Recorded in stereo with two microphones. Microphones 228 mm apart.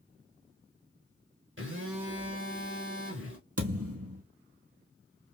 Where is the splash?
No splash in this recording.